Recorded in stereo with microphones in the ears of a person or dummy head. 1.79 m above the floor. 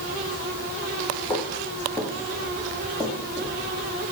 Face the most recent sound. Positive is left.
turn(degrees=5)  # may be behind; listen again after turning